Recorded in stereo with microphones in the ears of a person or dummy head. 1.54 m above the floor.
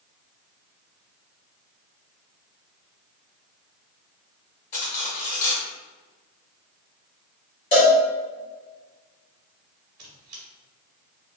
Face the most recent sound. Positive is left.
turn(degrees=-45)  # may be behind; listen again after turning